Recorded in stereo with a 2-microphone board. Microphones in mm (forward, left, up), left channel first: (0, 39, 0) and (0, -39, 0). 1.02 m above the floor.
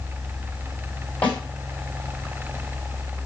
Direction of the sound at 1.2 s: 25° left (ahead or behind).